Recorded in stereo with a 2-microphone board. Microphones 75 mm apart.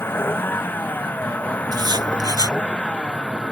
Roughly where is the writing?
Right.